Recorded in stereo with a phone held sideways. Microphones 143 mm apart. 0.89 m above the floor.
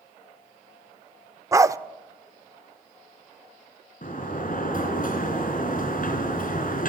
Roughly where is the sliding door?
Left.